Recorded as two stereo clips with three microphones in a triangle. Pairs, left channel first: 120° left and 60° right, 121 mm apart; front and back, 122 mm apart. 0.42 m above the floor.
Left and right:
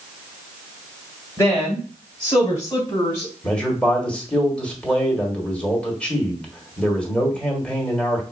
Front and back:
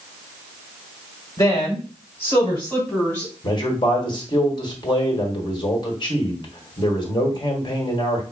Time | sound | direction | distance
1.4 | a woman speaking | 55° left | 2 m
3.4 | a man speaking | 40° left | 1.6 m